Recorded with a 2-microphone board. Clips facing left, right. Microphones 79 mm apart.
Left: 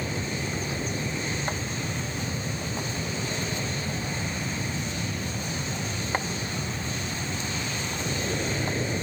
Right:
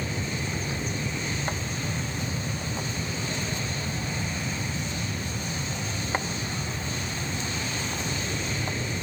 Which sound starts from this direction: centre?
An aircraft, at 0.0 s.